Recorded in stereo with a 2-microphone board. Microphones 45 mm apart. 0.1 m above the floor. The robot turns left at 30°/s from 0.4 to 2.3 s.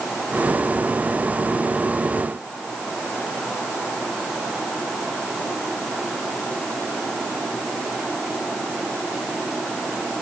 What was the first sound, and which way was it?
Only background noise.